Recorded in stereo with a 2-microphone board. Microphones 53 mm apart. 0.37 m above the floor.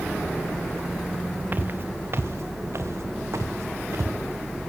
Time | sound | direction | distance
1.5 | footsteps | 40° right (ahead or behind) | 2 m